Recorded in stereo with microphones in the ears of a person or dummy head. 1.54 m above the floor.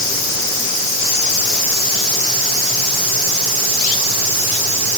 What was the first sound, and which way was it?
Only background noise.